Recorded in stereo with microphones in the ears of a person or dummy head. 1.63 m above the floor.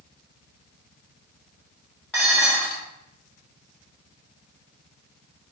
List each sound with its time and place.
2.1 s dishes clattering: centre (ahead or behind), 1.9 m